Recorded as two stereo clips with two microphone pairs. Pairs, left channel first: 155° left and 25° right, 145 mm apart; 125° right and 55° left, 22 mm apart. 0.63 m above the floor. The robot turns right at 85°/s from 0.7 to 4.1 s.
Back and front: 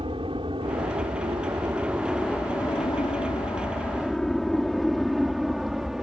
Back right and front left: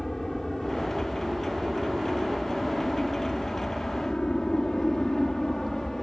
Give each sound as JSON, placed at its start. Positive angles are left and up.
{"t": 0.0, "sound": "an aircraft", "azimuth_deg": -55}